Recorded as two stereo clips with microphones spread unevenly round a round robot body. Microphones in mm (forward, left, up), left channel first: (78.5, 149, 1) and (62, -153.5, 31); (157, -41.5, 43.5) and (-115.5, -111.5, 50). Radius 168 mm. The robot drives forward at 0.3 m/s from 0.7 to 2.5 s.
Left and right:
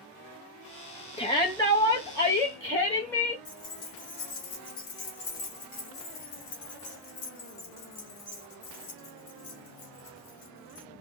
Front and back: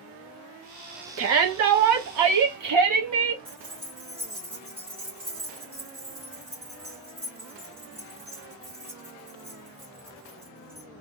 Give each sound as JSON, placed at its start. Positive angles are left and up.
{"t": 1.2, "sound": "a shout", "azimuth_deg": 155, "distance_m": 0.7}
{"t": 3.5, "sound": "keys jangling", "azimuth_deg": 130, "distance_m": 0.9}